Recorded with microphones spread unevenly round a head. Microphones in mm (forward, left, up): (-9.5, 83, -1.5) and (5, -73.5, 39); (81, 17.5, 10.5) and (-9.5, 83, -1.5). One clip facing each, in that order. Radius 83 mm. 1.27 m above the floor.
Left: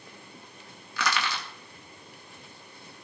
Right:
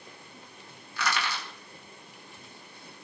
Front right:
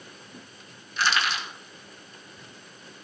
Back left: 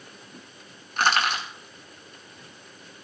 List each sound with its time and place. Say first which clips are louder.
1.0 s crushing: left 1 dB, back left 3 dB; 105° left, 3.5 m